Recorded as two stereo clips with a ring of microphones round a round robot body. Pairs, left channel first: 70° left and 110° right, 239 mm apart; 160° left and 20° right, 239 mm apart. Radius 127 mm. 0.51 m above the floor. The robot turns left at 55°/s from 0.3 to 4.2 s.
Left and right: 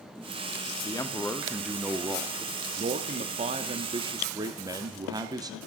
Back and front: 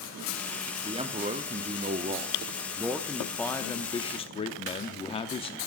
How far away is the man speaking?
About 0.7 m.